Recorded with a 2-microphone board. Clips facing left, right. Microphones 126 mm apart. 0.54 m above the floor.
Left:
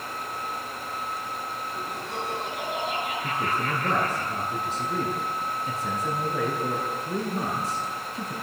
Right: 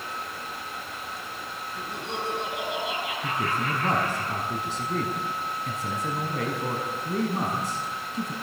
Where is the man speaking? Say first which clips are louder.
Right 2 dB; 80° right, 5.5 m.